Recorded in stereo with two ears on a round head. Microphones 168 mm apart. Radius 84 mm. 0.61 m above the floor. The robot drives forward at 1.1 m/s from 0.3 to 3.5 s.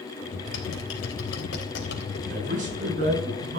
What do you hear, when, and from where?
0.5 s typing on a keyboard: 70° left (ahead or behind), 3.5 m; by 2.2 s 65° left (ahead or behind), 4 m
2.3 s a man speaking: 45° right (ahead or behind), 7 m; by 3.6 s 40° right (ahead or behind), 8 m